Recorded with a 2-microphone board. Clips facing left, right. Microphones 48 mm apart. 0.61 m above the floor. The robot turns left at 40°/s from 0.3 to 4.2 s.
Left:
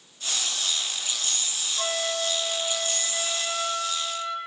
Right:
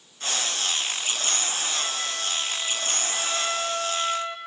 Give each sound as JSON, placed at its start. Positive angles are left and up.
{"t": 1.8, "sound": "a flute", "azimuth_deg": 60, "distance_m": 0.8}